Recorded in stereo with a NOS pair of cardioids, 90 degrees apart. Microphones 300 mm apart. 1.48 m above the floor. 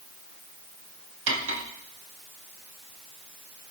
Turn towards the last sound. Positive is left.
turn(degrees=-45)